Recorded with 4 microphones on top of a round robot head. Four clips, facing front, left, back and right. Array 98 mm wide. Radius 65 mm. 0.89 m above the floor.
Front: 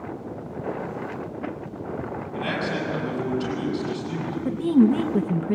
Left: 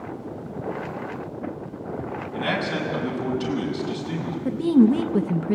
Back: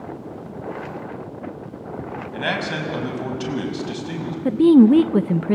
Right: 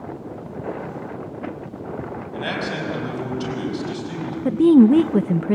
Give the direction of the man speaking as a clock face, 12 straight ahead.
6 o'clock.